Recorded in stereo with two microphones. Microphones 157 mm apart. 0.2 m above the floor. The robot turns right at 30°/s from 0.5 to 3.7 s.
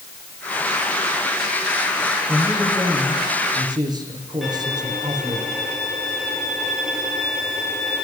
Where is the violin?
Centre (ahead or behind), 9 m.